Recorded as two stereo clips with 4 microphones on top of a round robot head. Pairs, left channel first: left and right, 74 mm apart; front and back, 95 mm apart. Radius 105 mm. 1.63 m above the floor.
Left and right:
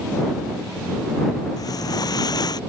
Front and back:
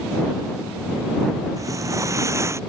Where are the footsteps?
125° left; by 2.6 s 120° left.